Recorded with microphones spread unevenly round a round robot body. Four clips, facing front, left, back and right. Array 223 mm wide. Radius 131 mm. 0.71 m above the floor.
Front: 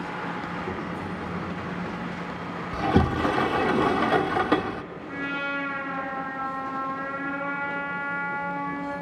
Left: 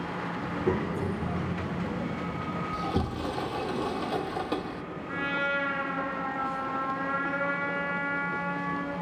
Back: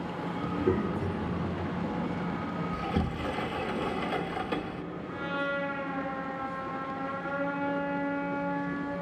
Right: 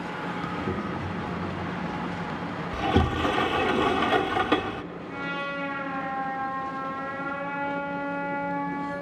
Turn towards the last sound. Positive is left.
turn(degrees=35)